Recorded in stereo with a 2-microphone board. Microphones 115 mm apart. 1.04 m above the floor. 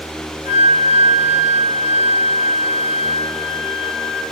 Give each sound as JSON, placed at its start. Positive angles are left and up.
{"t": 0.5, "sound": "a flute", "side_deg": 50, "distance_m": 1.1}